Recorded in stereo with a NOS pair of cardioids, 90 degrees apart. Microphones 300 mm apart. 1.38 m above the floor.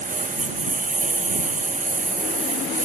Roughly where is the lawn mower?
Ahead right.